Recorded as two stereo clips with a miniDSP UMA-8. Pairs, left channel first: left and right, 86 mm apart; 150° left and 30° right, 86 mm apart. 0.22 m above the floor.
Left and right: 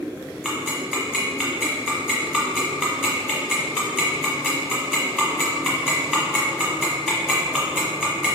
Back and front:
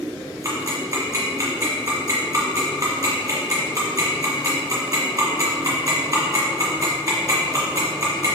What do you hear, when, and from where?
0.4 s ticking: 15° right, 1.2 m